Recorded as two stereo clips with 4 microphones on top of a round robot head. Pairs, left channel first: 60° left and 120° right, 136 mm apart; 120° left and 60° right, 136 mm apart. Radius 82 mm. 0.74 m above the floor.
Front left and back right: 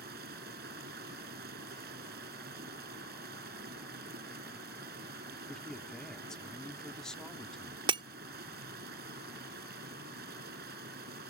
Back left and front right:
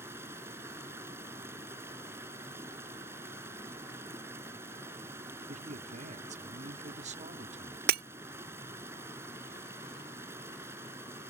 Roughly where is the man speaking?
Ahead right.